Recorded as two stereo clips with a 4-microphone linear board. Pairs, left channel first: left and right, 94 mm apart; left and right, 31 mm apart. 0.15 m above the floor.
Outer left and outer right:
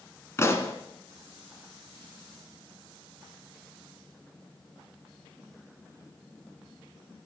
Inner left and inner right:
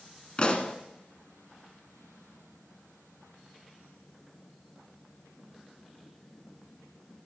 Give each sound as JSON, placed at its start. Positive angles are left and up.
{"t": 0.4, "sound": "a pop", "side_deg": 30, "distance_m": 1.1}